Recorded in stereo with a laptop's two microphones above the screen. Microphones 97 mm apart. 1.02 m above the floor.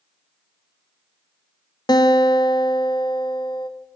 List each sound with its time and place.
1.9 s a guitar: 50° left (ahead or behind), 0.6 m